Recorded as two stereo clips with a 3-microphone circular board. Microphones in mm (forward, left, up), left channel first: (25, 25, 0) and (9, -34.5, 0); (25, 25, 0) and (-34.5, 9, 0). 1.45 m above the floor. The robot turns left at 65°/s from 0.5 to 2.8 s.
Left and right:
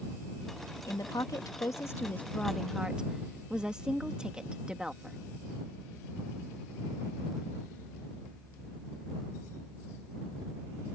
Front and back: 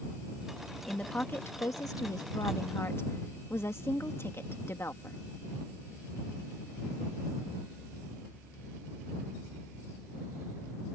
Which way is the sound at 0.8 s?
95° left.